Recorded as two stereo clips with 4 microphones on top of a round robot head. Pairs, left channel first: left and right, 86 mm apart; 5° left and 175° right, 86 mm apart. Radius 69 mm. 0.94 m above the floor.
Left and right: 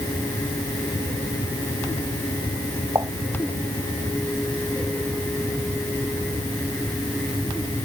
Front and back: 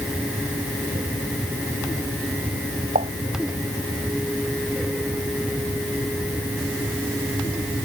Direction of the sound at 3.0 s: 155° right.